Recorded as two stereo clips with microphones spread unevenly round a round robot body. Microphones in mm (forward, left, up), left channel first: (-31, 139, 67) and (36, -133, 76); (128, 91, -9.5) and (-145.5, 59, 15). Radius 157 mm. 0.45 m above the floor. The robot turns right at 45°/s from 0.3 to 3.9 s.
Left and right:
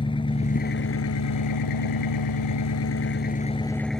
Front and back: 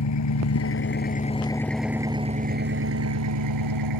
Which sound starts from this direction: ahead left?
An engine running, at 0.0 s.